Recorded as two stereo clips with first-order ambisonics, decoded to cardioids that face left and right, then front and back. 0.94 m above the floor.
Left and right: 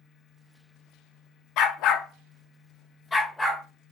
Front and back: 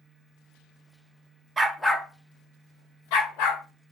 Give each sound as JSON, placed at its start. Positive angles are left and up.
{"t": 1.6, "sound": "a dog barking", "azimuth_deg": 105, "distance_m": 0.5}